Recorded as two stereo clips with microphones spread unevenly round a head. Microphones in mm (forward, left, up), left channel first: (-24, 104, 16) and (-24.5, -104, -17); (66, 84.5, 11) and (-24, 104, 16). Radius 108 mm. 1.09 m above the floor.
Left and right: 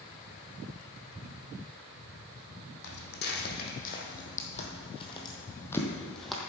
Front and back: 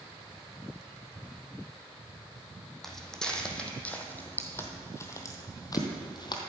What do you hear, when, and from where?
2.8 s footsteps: 75° left, 2 m; by 6.4 s 5° left, 1.6 m